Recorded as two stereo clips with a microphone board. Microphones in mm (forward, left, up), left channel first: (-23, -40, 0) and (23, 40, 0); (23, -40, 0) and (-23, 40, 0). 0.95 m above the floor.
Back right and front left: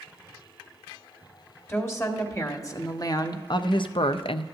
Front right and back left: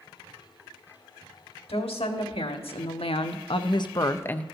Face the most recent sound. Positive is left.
turn(degrees=-140)